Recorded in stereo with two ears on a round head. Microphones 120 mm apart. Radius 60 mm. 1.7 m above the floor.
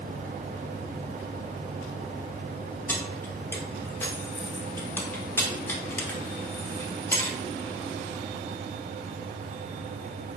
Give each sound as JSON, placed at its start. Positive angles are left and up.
{"t": 2.9, "sound": "keys jangling", "side_deg": 15, "distance_m": 0.5}